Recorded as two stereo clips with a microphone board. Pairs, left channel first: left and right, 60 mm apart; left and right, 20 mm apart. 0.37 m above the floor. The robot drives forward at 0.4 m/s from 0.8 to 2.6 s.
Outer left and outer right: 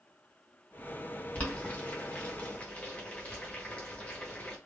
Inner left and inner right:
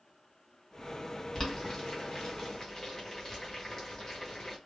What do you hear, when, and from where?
1.4 s boiling: 25° left (ahead or behind), 1.2 m; by 4.6 s 20° left (ahead or behind), 1.3 m